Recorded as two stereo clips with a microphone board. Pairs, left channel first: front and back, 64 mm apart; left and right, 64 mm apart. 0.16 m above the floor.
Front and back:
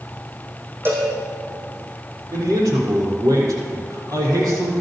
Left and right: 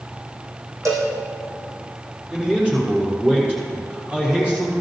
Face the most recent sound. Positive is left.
turn(degrees=-160)